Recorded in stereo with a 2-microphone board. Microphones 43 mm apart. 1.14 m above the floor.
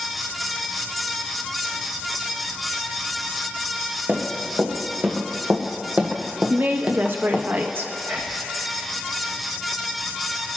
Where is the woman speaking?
50° right (ahead or behind), 0.9 m.